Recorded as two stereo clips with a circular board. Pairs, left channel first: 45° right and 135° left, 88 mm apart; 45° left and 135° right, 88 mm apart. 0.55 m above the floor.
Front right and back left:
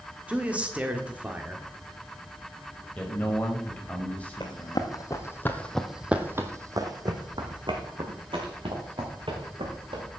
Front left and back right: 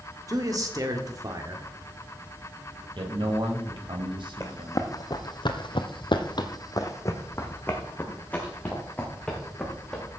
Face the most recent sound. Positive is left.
turn(degrees=125)